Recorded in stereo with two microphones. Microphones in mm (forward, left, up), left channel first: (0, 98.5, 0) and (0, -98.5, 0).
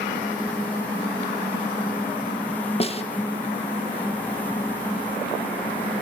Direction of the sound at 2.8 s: 30° left (ahead or behind).